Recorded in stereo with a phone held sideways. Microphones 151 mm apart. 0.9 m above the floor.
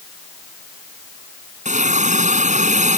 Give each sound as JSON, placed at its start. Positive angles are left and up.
{"t": 1.6, "sound": "a hiss", "side_deg": -55}